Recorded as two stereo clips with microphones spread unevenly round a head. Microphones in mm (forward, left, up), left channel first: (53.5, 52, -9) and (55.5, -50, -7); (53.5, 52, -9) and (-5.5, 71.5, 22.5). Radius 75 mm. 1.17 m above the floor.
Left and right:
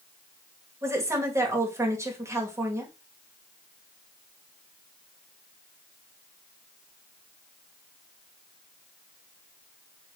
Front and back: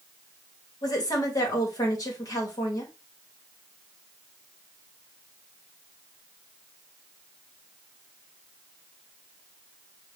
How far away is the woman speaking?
About 1.9 m.